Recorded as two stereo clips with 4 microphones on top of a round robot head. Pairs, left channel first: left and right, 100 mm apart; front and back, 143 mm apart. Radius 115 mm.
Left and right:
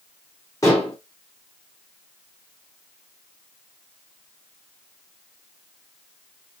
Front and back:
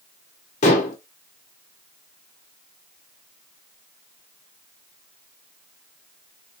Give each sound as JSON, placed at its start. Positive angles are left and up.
{"t": 0.6, "sound": "dishes clattering", "azimuth_deg": 20, "distance_m": 0.8}